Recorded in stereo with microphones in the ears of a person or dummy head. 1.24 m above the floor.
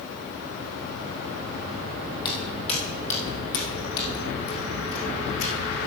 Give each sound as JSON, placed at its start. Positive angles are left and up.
{"t": 2.2, "sound": "footsteps", "side_deg": 15, "distance_m": 2.5}